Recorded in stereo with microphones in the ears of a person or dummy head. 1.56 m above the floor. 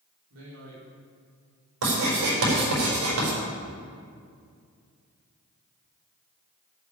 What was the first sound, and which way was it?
A man speaking, 75° right (ahead or behind).